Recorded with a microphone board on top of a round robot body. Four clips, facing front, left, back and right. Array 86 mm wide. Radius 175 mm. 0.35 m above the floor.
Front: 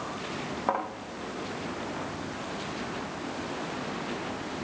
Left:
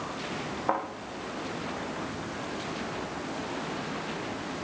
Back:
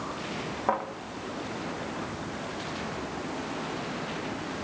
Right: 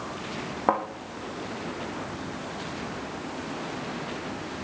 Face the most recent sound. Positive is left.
turn(degrees=-90)